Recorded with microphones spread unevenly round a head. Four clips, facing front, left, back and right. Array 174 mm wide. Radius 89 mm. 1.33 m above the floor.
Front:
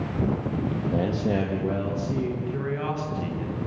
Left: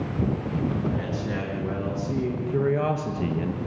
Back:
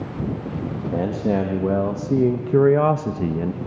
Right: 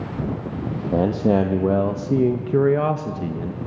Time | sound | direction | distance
0.9 | a man speaking | 100° right | 1.8 m